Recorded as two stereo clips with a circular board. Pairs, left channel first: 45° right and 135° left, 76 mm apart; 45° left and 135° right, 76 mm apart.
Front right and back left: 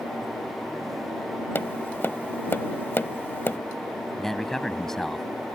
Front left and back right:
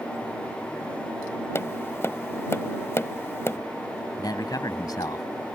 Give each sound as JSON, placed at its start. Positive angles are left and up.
{"t": 1.6, "sound": "tapping", "azimuth_deg": 5}
{"t": 4.2, "sound": "a man speaking", "azimuth_deg": 40}